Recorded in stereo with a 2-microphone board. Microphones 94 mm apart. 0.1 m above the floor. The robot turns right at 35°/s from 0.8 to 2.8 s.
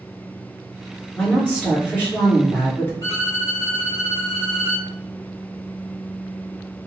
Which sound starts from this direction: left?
A violin, at 3.0 s.